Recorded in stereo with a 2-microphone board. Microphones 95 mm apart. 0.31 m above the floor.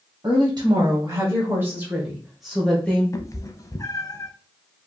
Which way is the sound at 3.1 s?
35° left (ahead or behind).